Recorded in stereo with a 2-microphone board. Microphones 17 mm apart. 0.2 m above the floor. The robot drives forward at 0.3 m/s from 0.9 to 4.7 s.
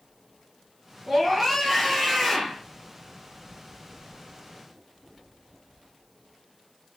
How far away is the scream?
About 3 m.